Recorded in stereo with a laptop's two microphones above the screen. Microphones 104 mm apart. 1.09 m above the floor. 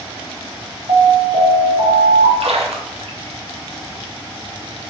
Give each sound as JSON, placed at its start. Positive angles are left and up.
{"t": 0.9, "sound": "an alarm", "side_deg": -65, "distance_m": 1.4}
{"t": 2.4, "sound": "a splash", "side_deg": -75, "distance_m": 0.6}